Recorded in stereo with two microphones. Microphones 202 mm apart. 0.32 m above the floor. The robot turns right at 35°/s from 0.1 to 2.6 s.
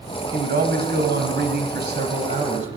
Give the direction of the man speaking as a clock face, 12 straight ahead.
4 o'clock.